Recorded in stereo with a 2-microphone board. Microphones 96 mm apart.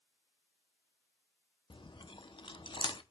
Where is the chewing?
60° left (ahead or behind), 0.7 m.